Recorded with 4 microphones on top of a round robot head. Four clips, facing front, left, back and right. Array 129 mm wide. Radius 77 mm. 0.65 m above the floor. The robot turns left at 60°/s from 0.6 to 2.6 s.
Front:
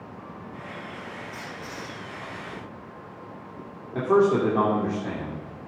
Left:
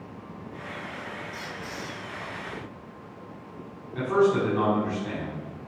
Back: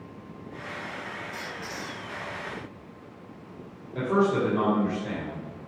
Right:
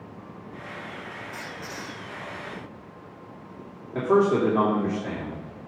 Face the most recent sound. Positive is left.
turn(degrees=-40)